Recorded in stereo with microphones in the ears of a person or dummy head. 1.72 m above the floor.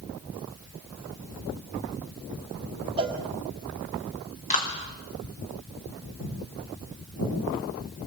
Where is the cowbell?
30° right (ahead or behind), 1.8 m.